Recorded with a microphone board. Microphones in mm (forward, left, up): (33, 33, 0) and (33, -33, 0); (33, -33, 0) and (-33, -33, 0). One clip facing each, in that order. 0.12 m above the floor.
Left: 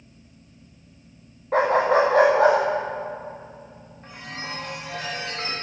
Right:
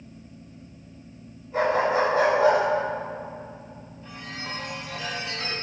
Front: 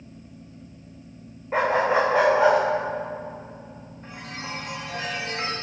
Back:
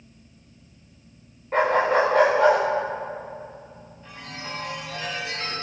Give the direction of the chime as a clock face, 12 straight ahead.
10 o'clock.